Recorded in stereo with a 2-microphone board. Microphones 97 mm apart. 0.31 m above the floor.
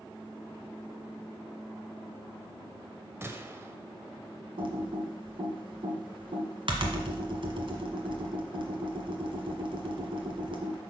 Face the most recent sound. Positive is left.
turn(degrees=-65)  # may be behind; listen again after turning